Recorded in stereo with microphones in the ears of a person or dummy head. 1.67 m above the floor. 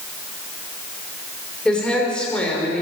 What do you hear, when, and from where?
1.6 s a woman speaking: 5° left (ahead or behind), 6.5 m